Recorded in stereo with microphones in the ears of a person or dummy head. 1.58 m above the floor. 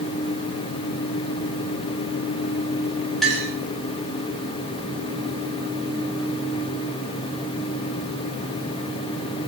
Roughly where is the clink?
Centre.